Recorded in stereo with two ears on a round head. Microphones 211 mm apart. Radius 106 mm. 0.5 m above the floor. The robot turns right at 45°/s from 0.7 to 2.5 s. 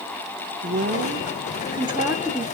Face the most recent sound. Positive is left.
turn(degrees=0)